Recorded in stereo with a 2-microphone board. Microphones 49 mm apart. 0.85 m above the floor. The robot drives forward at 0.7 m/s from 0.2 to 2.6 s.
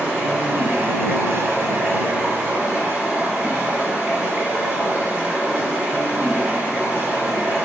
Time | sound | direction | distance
0.0 | running water | 35° right (ahead or behind) | 1.2 m